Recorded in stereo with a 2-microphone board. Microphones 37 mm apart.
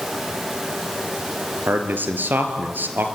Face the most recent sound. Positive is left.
turn(degrees=-60)  # may be behind; listen again after turning